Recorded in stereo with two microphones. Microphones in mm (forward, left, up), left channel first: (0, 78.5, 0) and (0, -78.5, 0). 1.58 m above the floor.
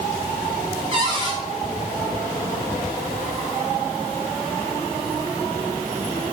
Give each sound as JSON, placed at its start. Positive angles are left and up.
{"t": 0.9, "sound": "a cupboard door", "side_deg": -30, "distance_m": 7.5}